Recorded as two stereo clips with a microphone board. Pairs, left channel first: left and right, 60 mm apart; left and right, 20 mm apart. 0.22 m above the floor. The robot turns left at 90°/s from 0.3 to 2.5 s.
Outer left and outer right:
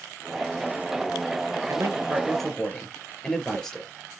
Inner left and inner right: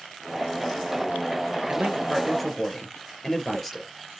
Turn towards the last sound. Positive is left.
turn(degrees=170)